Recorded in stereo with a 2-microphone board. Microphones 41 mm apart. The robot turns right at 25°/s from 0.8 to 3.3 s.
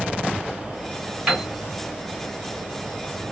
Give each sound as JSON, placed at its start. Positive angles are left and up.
{"t": 1.3, "sound": "a piano", "side_deg": -20, "distance_m": 2.5}